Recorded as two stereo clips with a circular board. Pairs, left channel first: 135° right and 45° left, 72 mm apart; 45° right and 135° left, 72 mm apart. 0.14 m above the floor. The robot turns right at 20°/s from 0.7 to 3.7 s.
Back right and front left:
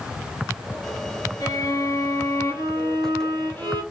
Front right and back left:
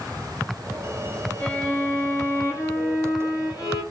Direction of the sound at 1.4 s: 115° right.